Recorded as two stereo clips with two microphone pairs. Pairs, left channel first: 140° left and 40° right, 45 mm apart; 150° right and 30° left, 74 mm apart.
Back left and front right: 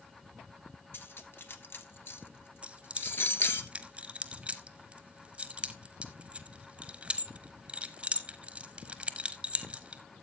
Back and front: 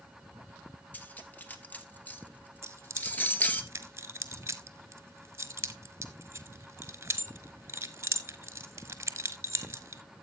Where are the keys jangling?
10° left, 1.1 m.